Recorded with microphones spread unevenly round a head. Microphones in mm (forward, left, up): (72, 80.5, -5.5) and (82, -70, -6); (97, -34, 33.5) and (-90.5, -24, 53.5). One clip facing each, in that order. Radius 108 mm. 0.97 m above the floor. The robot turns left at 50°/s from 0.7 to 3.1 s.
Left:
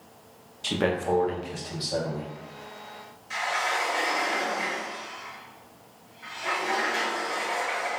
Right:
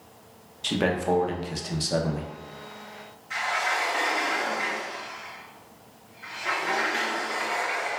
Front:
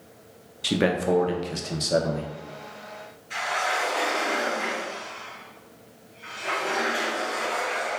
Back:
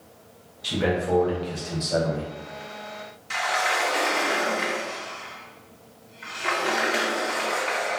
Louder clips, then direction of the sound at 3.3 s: Even, back 2 dB; 160° left.